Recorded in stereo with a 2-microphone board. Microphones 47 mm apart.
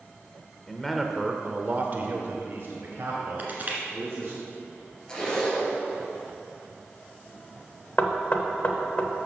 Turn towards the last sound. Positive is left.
turn(degrees=35)  # may be behind; listen again after turning